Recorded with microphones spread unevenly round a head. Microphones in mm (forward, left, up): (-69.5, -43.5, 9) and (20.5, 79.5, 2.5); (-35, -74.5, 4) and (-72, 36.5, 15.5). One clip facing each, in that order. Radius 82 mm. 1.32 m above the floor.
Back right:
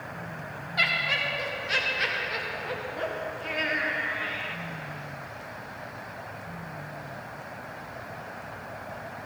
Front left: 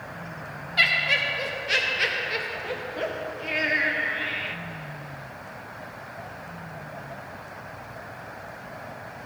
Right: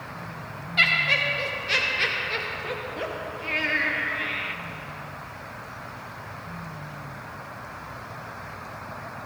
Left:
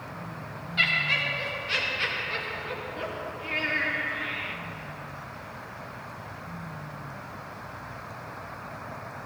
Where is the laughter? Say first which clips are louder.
Front left 2 dB, right 4 dB; 10° right, 0.7 m.